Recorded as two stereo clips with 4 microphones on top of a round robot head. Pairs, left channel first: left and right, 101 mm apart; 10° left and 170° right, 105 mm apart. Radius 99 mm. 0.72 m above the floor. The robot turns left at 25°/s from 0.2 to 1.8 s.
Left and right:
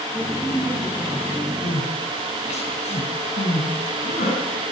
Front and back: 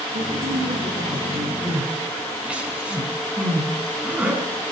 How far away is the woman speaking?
About 8 m.